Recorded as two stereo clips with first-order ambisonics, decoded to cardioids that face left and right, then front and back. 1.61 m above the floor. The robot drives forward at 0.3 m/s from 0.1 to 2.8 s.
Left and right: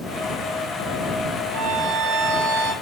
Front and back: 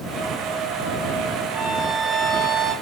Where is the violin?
90° right, 8 m; by 2.7 s 95° right, 8 m.